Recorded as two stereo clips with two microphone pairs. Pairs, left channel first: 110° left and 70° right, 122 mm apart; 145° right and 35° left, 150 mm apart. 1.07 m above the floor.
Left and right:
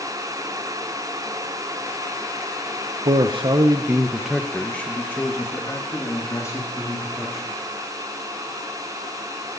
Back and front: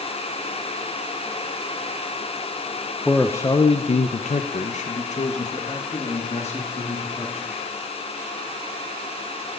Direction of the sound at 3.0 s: 60° right.